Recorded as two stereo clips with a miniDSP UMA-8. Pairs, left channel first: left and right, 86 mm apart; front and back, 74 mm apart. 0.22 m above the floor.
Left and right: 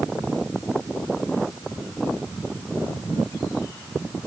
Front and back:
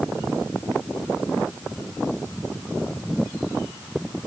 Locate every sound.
Only background noise.